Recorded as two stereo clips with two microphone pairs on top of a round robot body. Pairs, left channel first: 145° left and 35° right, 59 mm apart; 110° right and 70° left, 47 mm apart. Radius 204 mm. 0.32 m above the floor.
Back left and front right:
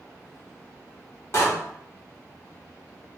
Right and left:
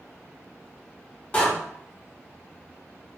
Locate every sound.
1.3 s a door slam: 175° right, 1.1 m